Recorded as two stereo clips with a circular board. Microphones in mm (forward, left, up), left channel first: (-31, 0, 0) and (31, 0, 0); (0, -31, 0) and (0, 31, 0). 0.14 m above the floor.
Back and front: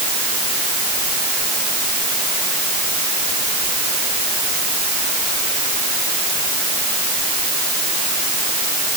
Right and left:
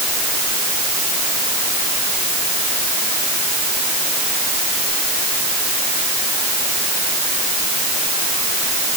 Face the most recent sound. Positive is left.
No sound to turn to.